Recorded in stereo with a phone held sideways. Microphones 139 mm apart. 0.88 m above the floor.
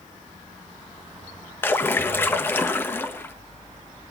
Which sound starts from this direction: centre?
A splash, at 1.6 s.